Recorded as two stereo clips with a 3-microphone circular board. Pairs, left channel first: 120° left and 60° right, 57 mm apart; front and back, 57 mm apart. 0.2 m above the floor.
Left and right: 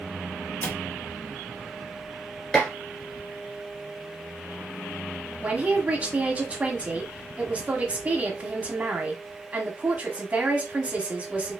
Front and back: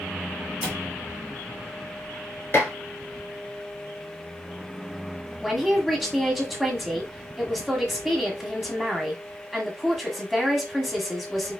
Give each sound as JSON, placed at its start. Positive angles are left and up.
{"t": 0.6, "sound": "a cupboard door", "azimuth_deg": 120, "distance_m": 1.7}
{"t": 2.5, "sound": "dishes clattering", "azimuth_deg": 45, "distance_m": 2.0}
{"t": 5.4, "sound": "a man speaking", "azimuth_deg": -95, "distance_m": 1.5}